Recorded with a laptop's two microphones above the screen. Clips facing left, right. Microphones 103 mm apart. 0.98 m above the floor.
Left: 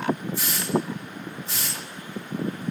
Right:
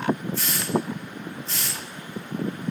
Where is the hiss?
15° left (ahead or behind), 1.9 m.